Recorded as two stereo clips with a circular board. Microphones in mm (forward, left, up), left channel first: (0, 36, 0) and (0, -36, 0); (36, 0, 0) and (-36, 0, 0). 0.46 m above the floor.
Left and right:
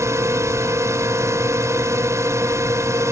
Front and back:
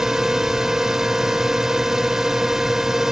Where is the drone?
100° right.